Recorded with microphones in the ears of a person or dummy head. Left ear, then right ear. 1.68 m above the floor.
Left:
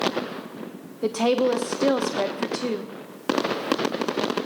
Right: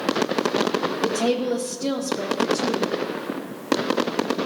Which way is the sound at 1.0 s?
55° left (ahead or behind).